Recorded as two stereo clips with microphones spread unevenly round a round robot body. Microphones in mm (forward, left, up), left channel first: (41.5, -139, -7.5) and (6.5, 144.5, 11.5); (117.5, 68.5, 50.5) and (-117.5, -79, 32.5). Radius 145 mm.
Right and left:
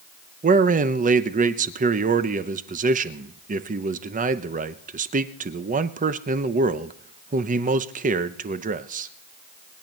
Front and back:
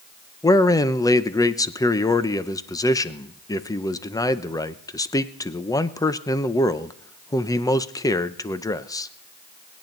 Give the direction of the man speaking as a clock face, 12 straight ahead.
9 o'clock.